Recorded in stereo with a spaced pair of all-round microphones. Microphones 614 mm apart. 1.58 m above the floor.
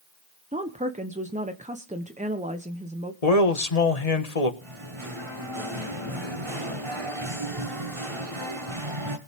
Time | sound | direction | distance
0.5 | a woman speaking | 10° right (ahead or behind) | 0.9 m
3.2 | a man speaking | 80° left | 1.7 m
4.6 | singing | 50° right (ahead or behind) | 2 m